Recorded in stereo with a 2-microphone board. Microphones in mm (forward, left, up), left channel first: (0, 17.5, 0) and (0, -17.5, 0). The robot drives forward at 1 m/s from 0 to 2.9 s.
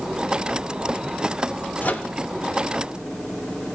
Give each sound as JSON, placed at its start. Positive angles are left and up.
{"t": 1.8, "sound": "a microwave", "side_deg": 55, "distance_m": 1.5}